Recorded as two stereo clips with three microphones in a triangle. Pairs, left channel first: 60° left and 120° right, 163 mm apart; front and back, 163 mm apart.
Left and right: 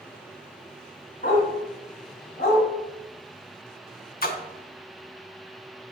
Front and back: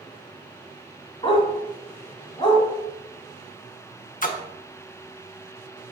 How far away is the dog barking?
About 1.8 m.